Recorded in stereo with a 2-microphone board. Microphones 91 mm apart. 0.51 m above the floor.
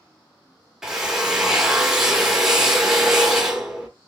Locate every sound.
0.8 s a drill: 5° right (ahead or behind), 0.8 m